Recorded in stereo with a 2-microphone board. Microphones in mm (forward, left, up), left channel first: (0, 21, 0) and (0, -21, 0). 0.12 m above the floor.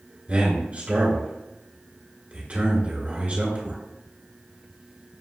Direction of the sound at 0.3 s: 30° right (ahead or behind).